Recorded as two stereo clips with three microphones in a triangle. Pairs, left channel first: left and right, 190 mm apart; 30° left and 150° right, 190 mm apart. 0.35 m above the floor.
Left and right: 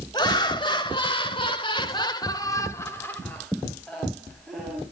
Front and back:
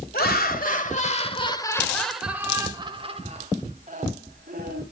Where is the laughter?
30° left, 1.8 m; by 4.8 s straight behind, 2.5 m.